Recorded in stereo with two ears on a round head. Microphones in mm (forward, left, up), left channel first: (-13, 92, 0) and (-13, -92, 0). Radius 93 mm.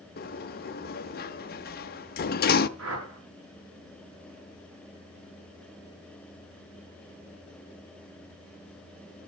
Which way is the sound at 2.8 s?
80° right.